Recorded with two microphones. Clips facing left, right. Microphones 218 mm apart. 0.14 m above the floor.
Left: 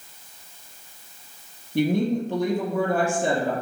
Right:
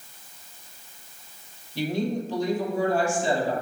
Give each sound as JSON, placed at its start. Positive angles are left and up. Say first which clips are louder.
{"t": 1.8, "sound": "a woman speaking", "louder": "left 5 dB", "side_deg": 60, "distance_m": 4.0}